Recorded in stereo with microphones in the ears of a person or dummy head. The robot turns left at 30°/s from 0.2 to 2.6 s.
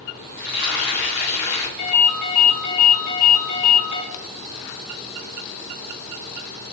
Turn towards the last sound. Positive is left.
turn(degrees=-5)  # may be behind; listen again after turning